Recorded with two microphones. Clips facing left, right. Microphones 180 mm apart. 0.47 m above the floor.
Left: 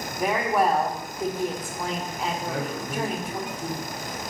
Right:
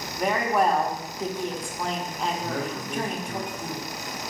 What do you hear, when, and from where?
0.2 s a woman speaking: 5° left (ahead or behind), 0.7 m
2.4 s a man speaking: 10° left (ahead or behind), 1.1 m